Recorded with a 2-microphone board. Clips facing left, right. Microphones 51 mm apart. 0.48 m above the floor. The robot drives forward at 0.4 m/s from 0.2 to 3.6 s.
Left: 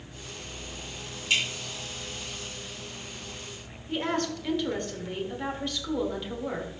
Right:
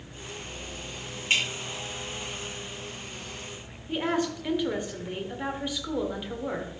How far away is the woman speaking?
About 1.4 m.